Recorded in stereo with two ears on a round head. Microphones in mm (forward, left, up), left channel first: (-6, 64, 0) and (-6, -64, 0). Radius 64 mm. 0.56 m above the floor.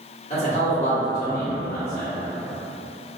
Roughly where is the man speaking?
Left.